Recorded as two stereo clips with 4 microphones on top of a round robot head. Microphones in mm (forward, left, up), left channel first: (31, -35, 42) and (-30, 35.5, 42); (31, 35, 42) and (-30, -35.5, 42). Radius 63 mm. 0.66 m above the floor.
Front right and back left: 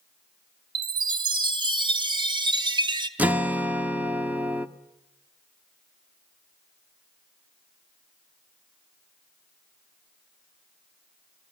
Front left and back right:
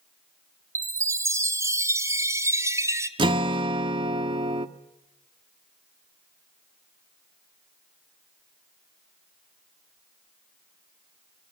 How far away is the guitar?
About 1.0 m.